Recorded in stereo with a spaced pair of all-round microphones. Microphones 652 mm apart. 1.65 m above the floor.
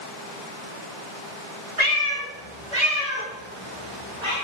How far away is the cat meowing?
About 2.5 m.